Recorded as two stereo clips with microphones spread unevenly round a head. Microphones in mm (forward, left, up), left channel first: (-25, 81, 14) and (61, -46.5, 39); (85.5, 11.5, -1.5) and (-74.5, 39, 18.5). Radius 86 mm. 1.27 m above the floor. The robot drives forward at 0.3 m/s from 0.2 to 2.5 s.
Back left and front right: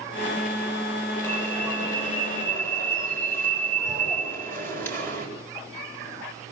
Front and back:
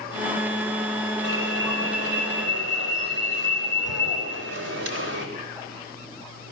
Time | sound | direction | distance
1.2 | an alarm | 160° right | 8 m